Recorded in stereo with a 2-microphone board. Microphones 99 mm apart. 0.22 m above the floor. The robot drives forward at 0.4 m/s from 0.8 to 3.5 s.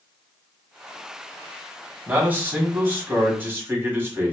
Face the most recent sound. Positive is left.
turn(degrees=-20)  # may be behind; listen again after turning